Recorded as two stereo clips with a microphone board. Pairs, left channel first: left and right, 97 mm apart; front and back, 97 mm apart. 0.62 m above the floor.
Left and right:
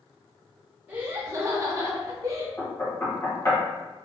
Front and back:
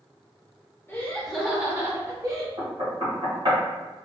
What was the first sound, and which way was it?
Laughter, 40° right.